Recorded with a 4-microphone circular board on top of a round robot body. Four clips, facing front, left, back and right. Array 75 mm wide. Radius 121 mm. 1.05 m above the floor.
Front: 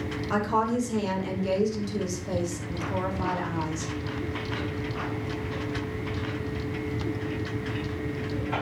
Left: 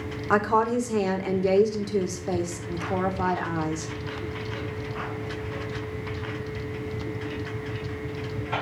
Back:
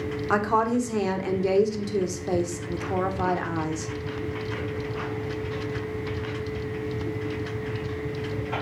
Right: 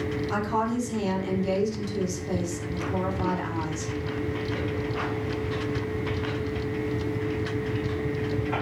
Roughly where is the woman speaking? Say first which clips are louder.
Left 7 dB, back 3 dB; behind left.